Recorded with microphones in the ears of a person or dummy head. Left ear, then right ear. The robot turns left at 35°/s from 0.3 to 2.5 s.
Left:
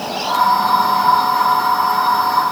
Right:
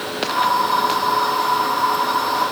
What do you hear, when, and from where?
Only background noise.